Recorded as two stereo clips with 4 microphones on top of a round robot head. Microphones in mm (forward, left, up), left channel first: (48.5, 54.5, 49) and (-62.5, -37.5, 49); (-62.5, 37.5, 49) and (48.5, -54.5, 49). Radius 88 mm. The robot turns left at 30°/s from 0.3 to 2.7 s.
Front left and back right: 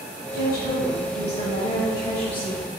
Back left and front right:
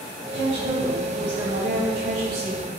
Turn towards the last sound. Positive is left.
turn(degrees=-35)